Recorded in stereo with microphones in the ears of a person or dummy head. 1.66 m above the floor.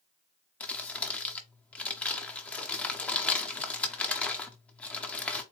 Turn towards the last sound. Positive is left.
turn(degrees=5)  # may be behind; listen again after turning